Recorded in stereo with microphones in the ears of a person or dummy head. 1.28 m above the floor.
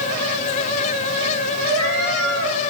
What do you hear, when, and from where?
1.7 s a cat meowing: 80° right, 3.5 m